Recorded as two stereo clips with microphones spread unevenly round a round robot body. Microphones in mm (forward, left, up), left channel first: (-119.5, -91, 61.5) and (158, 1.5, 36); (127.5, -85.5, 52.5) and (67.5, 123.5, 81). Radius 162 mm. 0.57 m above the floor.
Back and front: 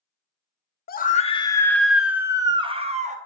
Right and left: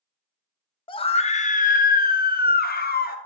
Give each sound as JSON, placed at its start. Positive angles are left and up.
{"t": 0.9, "sound": "a scream", "azimuth_deg": -115, "distance_m": 1.1}